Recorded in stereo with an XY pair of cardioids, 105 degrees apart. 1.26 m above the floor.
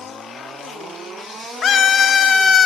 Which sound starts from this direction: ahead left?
A scream, at 1.6 s.